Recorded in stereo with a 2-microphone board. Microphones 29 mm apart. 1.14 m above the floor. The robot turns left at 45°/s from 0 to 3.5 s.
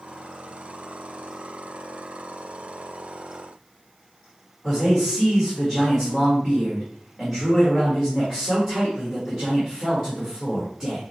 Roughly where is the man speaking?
Centre.